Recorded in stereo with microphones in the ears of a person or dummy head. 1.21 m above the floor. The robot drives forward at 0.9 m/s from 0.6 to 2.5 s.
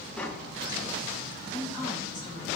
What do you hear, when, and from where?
0.2 s tapping: 10° left (ahead or behind), 1.0 m; by 2.5 s 5° left (ahead or behind), 2.5 m
1.5 s a woman speaking: 30° left (ahead or behind), 5.5 m; by 2.5 s 25° left (ahead or behind), 6 m